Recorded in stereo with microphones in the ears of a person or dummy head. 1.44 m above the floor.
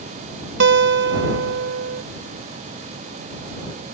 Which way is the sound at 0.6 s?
60° right (ahead or behind).